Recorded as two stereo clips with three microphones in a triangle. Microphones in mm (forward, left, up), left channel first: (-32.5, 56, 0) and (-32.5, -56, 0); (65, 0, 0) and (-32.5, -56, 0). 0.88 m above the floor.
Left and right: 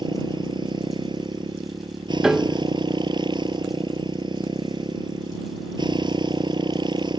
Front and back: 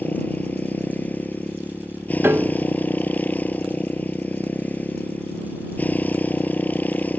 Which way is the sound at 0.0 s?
45° right.